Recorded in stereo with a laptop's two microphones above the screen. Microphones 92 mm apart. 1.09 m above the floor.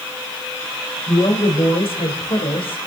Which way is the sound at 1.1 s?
90° left.